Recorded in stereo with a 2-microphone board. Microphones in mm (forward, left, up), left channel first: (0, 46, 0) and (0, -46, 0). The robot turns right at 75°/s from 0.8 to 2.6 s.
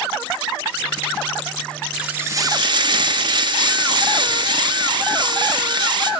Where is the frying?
175° right, 4 m; by 6.1 s 125° right, 4 m.